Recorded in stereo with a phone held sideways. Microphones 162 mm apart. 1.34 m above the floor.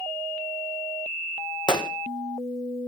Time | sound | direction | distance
1.7 | a gunshot | 30° left (ahead or behind) | 1.4 m